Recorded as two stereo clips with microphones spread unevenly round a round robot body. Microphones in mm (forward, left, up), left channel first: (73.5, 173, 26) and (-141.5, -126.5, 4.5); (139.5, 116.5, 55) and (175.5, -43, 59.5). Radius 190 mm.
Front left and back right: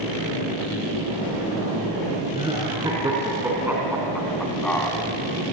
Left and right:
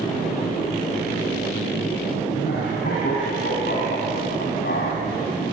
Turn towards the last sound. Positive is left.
turn(degrees=135)